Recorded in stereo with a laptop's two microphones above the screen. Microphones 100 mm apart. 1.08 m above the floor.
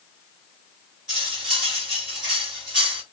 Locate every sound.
1.1 s cutlery clinking: 5° right (ahead or behind), 1.4 m